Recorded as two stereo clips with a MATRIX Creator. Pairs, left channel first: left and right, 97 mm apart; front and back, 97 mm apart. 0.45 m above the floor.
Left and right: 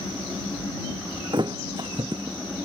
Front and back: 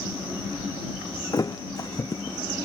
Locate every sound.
1.3 s a thud: 50° right